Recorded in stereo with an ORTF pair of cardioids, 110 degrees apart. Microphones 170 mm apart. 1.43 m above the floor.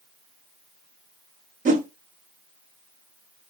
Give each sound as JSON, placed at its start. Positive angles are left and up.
{"t": 1.6, "sound": "a whoosh", "azimuth_deg": -50, "distance_m": 1.4}